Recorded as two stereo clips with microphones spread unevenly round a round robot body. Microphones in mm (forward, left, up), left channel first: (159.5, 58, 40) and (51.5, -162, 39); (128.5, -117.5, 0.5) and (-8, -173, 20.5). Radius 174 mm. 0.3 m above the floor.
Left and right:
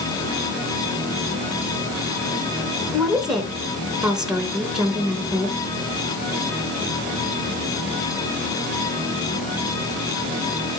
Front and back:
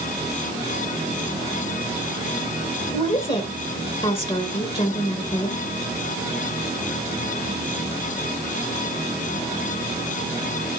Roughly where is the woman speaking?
Ahead right.